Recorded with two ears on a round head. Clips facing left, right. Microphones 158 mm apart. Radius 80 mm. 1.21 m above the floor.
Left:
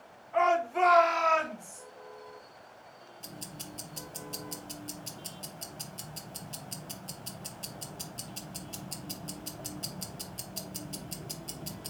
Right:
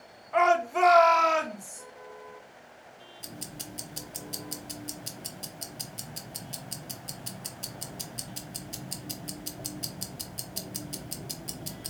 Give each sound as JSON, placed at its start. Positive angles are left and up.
{"t": 0.3, "sound": "a shout", "side_deg": -60, "distance_m": 1.2}
{"t": 3.2, "sound": "ticking", "side_deg": -15, "distance_m": 0.8}